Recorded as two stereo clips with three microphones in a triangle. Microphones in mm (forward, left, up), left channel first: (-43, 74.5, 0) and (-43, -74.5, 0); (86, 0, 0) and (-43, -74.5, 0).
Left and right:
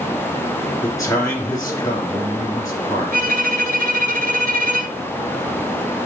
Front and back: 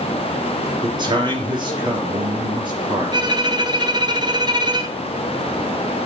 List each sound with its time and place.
0.8 s a man speaking: 155° left, 3 m
3.1 s a violin: 90° right, 0.9 m